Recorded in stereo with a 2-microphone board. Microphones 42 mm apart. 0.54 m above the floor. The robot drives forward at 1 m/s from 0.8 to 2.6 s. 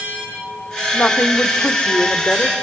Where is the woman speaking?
45° left (ahead or behind), 1.8 m; by 2.5 s 40° left (ahead or behind), 2 m.